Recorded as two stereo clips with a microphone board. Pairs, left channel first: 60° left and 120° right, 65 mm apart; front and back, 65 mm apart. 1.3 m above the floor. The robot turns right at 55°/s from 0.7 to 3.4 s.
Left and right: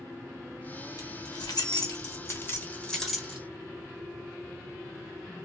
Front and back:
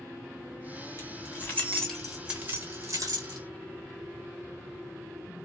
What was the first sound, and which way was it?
Keys jangling, 35° left.